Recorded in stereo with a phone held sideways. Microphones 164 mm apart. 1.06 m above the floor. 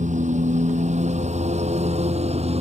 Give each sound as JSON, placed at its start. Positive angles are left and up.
{"t": 0.0, "sound": "a lawn mower", "side_deg": -45}